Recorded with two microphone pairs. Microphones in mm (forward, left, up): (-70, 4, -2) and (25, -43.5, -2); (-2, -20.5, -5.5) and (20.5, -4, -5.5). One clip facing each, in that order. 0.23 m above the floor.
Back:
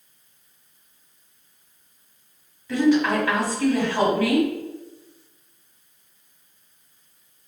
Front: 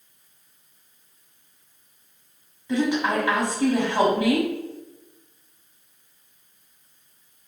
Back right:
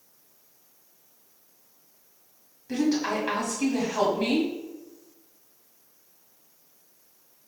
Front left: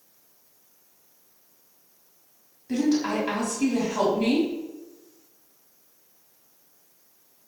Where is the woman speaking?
70° right, 1.4 m.